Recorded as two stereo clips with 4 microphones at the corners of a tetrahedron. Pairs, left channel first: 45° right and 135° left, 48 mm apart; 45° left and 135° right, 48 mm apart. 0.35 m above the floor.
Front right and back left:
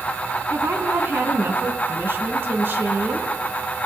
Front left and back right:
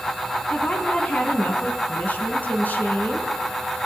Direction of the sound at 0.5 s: 105° left.